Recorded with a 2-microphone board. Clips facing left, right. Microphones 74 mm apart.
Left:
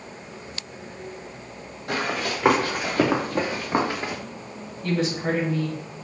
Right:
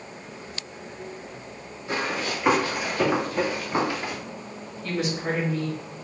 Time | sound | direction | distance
1.9 | running footsteps | 60° left (ahead or behind) | 2.5 m
4.8 | a woman speaking | 10° left (ahead or behind) | 2.0 m